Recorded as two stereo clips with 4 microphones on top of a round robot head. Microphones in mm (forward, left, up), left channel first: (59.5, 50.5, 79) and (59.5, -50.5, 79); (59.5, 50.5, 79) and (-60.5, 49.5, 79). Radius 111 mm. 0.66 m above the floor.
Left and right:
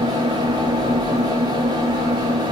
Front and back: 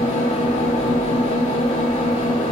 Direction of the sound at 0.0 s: 45° right.